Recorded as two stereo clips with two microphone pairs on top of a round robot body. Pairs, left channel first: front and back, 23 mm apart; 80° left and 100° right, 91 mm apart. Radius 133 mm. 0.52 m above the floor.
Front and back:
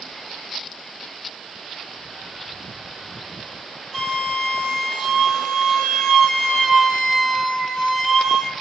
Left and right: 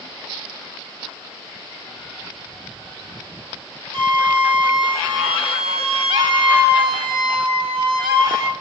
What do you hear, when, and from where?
3.9 s a flute: 80° right, 2.5 m